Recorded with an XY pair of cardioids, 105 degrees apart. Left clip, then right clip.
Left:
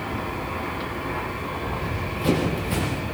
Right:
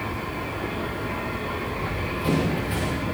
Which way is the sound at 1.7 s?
20° left.